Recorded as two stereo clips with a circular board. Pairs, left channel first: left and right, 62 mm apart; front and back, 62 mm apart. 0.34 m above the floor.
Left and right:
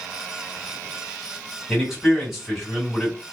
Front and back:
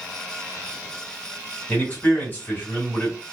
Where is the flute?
No flute in this recording.